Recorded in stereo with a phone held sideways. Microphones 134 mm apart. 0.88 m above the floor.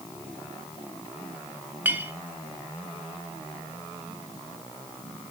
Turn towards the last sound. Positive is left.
turn(degrees=-15)  # may be behind; listen again after turning